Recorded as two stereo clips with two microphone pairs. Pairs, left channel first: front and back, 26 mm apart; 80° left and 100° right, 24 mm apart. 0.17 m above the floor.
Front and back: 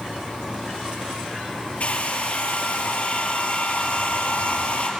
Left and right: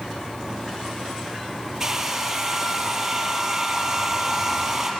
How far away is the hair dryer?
About 4.5 m.